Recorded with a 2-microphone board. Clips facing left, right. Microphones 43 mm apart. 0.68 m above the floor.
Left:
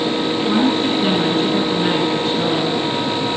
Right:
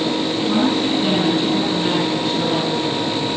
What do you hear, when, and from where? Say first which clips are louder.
0.5 s a woman speaking: left 1 dB; 10° left (ahead or behind), 8.5 m; by 3.3 s centre (ahead or behind), 9.5 m